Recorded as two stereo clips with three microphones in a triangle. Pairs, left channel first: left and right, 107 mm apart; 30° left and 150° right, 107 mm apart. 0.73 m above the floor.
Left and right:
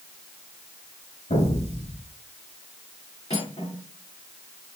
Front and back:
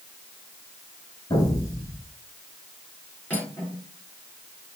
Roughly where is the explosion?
Left.